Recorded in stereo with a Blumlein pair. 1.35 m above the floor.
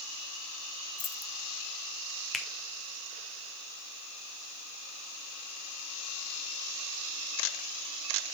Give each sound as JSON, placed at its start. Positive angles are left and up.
{"t": 1.0, "sound": "keys jangling", "azimuth_deg": 25, "distance_m": 0.7}
{"t": 2.3, "sound": "a finger snap", "azimuth_deg": 10, "distance_m": 1.0}